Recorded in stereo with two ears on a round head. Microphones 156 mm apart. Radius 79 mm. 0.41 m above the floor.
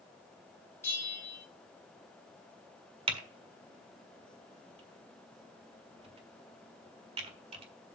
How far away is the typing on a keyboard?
About 1.5 m.